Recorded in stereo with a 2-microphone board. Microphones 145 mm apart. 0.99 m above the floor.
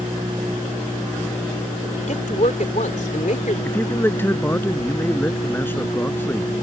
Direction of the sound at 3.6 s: 15° left (ahead or behind).